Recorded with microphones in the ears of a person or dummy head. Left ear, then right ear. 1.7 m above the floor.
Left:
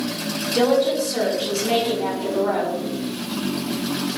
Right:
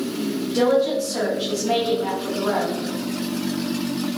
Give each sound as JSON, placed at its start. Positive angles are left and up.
{"t": 0.5, "sound": "a woman speaking", "side_deg": 20, "distance_m": 1.0}